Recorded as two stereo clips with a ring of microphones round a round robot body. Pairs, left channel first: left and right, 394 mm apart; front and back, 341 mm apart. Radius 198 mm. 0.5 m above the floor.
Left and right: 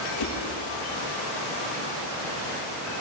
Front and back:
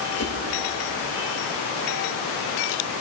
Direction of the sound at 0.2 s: 45° left.